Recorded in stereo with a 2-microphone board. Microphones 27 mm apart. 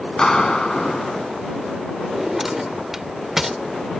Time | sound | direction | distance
0.2 | a clap | 30° left (ahead or behind) | ?
2.0 | a drawer | 15° right (ahead or behind) | ?